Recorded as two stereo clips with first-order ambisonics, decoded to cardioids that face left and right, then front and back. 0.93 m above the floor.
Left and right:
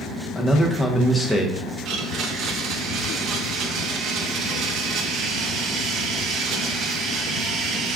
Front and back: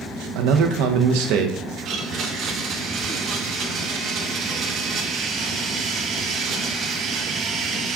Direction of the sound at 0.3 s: 170° left.